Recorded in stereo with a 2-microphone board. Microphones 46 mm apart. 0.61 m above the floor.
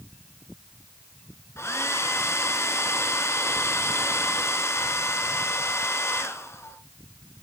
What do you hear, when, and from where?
1.6 s a hair dryer: 75° left (ahead or behind), 1.5 m